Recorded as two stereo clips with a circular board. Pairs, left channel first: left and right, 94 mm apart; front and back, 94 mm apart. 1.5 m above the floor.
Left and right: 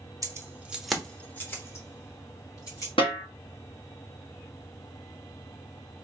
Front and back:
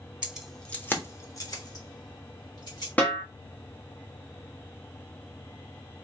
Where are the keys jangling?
110° right, 0.7 m; by 2.9 s 40° left, 2.0 m.